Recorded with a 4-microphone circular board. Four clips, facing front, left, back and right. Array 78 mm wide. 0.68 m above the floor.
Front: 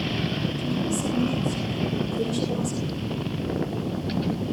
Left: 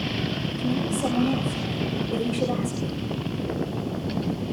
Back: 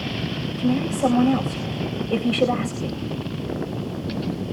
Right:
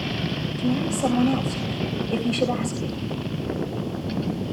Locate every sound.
0.6 s a woman speaking: 170° right, 3.5 m